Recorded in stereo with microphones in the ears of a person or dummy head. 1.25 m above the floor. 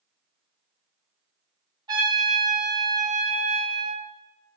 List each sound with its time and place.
1.9 s a trumpet: 20° right (ahead or behind), 0.8 m